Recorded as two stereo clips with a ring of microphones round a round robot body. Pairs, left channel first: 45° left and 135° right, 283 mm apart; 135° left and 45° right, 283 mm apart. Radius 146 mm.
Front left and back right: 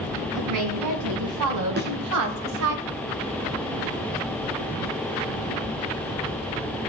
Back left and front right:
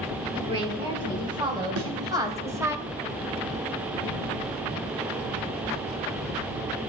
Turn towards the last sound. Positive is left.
turn(degrees=-80)